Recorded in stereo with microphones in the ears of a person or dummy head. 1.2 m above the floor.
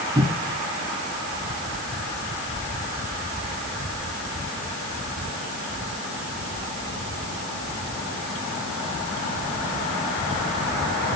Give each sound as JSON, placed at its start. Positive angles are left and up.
{"t": 0.1, "sound": "a cupboard door", "side_deg": -10, "distance_m": 1.3}